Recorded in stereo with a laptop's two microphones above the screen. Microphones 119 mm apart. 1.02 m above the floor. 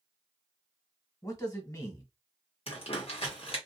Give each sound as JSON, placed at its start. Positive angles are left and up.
{"t": 1.2, "sound": "a man speaking", "side_deg": 30, "distance_m": 1.2}
{"t": 2.7, "sound": "crumpling", "side_deg": 55, "distance_m": 1.0}